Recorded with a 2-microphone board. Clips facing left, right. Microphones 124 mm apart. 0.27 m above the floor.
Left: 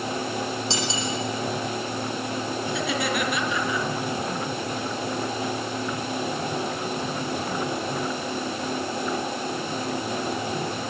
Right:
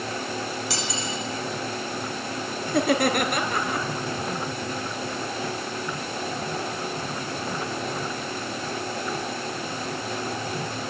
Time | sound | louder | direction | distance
0.7 | cutlery clinking | left 3 dB | 25° left (ahead or behind) | 9 m
2.7 | laughter | right 8 dB | 50° right (ahead or behind) | 3.5 m